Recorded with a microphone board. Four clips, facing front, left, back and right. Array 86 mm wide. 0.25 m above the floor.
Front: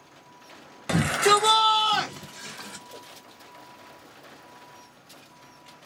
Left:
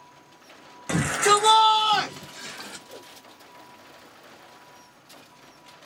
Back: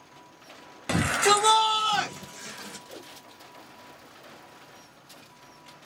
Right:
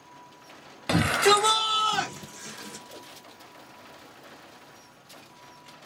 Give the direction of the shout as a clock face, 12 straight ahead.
3 o'clock.